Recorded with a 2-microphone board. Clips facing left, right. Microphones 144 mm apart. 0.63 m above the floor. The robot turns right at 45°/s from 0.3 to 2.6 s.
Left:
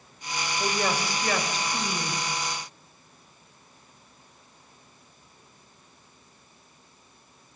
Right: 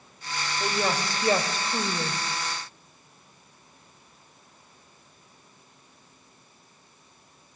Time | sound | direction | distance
0.6 | a woman speaking | 175° left | 3.5 m